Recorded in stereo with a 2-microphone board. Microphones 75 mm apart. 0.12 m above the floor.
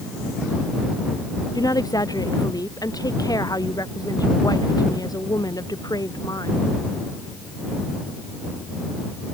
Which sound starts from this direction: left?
A woman speaking, at 1.6 s.